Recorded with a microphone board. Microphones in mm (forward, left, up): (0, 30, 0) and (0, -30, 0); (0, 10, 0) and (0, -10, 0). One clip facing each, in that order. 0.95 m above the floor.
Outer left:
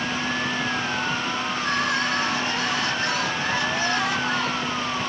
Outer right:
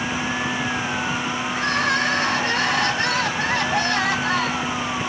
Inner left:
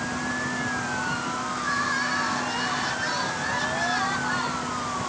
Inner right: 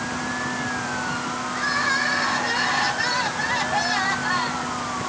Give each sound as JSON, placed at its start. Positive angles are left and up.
{"t": 1.5, "sound": "crying", "side_deg": -70, "distance_m": 8.0}